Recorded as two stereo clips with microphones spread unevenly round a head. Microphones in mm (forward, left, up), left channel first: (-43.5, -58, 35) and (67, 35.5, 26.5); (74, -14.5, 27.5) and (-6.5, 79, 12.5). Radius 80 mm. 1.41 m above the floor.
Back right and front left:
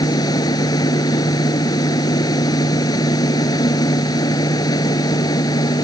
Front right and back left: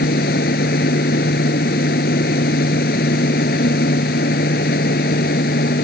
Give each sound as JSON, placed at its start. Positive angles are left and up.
{"t": 0.0, "sound": "a machine running", "azimuth_deg": -75}